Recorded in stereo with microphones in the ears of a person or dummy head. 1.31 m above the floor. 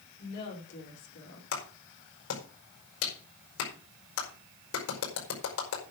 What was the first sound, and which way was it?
A woman speaking, 55° left (ahead or behind).